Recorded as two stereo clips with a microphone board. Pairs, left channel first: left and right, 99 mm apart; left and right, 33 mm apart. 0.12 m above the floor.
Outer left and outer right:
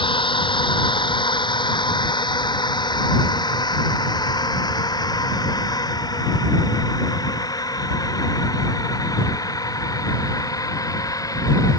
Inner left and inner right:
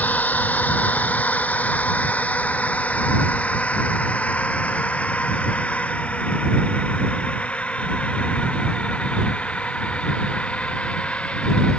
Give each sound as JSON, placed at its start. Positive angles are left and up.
{"t": 0.0, "sound": "a drone", "side_deg": 55}